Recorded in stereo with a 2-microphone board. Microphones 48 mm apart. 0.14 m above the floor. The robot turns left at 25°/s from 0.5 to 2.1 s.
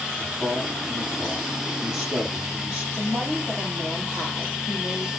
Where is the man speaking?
25° left, 6 m; by 2.9 s 15° right, 6 m.